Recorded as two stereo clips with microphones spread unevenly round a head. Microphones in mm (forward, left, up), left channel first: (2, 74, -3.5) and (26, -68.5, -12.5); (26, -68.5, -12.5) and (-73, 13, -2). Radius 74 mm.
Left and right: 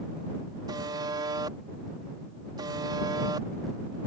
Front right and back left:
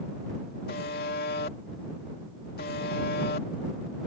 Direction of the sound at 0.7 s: 20° right.